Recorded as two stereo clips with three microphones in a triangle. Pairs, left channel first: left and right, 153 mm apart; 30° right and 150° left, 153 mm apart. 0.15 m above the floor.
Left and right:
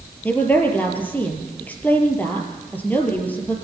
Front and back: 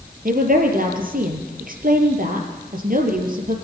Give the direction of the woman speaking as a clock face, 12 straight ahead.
6 o'clock.